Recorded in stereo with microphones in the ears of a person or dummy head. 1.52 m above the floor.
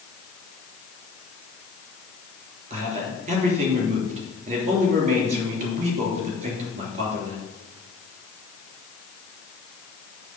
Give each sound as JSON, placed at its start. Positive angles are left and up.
{"t": 2.7, "sound": "a man speaking", "side_deg": -40, "distance_m": 3.0}